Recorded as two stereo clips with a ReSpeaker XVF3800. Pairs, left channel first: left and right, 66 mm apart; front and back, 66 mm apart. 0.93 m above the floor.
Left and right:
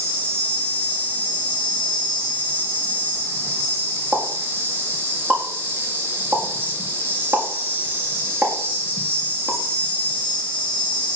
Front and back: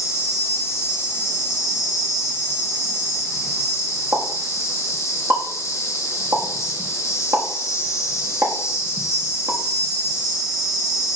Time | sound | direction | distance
0.0 | an insect | 35° right | 1.6 m
4.1 | a pop | 150° right | 1.5 m